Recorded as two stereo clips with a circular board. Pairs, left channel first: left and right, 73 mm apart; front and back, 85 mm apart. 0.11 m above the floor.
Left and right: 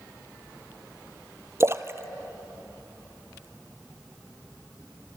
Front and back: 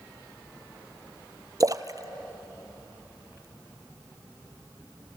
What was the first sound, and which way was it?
A splash, 135° right.